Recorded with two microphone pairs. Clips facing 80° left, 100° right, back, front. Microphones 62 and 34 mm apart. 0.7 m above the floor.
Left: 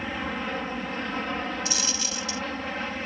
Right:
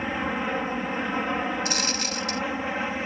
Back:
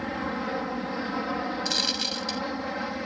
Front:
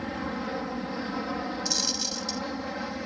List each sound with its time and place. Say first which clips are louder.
0.0 s an aircraft: right 3 dB, back 2 dB; 140° right
1.6 s a dropped coin: right 3 dB, back 3 dB; 135° right